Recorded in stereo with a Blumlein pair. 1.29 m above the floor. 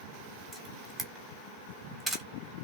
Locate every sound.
0.5 s a camera shutter: straight ahead, 1.7 m